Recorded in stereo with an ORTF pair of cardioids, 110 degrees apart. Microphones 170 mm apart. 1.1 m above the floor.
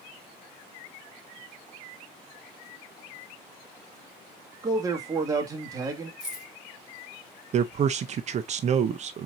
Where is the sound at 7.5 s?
40° right, 0.5 m.